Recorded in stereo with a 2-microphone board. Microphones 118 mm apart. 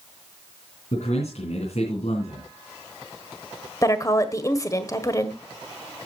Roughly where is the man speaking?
Left.